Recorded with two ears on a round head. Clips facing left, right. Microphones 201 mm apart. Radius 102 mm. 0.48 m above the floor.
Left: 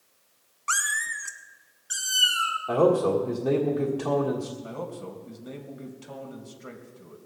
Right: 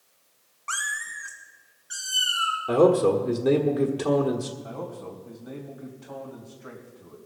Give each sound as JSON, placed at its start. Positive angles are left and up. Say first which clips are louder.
{"t": 0.7, "sound": "a cat meowing", "louder": "left 3 dB", "side_deg": 25, "distance_m": 0.6}
{"t": 2.7, "sound": "a man speaking", "louder": "right 3 dB", "side_deg": -20, "distance_m": 1.4}
{"t": 4.6, "sound": "a man speaking", "louder": "even", "side_deg": 40, "distance_m": 2.5}